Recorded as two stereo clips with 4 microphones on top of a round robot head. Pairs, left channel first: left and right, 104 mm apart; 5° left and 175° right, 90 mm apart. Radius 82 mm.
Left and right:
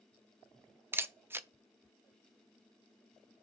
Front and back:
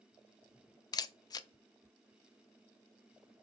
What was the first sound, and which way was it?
A camera shutter, 25° right.